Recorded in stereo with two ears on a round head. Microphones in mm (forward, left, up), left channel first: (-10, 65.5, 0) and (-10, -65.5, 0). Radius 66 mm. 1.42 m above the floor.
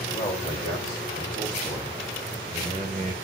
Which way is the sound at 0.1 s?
30° left (ahead or behind).